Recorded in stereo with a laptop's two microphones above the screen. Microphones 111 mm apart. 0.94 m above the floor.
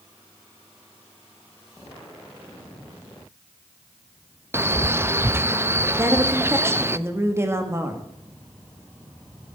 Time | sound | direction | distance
4.5 | a man speaking | 20° right (ahead or behind) | 0.7 m
6.0 | a woman speaking | 25° right (ahead or behind) | 1.7 m